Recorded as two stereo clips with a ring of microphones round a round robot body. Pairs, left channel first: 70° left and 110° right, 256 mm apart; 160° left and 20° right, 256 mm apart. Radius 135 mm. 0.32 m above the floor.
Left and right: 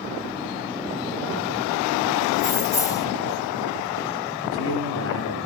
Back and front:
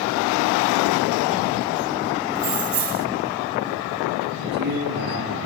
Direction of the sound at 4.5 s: 30° left.